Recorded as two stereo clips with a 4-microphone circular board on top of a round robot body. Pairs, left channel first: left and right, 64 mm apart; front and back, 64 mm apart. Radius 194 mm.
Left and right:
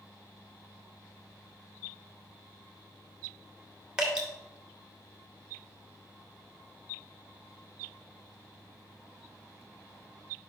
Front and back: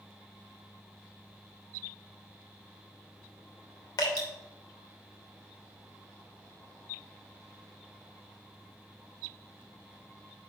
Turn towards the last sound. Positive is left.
turn(degrees=-15)